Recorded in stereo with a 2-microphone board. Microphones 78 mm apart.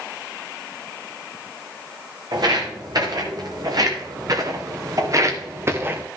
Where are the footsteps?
65° right (ahead or behind), 3.5 m; by 6.0 s 25° right (ahead or behind), 1.2 m.